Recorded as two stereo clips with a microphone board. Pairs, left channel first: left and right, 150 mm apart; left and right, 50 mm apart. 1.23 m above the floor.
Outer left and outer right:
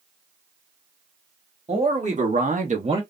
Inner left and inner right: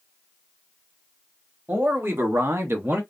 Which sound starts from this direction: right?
A man speaking, at 1.7 s.